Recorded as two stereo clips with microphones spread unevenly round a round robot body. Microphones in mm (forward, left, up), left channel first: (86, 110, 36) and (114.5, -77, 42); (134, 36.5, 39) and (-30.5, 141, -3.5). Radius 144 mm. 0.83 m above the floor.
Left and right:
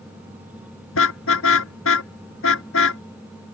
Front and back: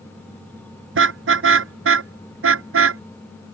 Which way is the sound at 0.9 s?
135° left.